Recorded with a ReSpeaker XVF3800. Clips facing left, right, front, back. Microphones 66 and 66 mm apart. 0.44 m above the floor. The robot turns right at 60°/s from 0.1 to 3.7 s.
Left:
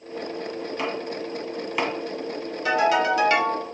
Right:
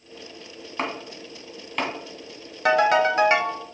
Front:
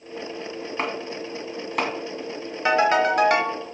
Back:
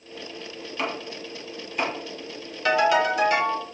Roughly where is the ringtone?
Ahead right.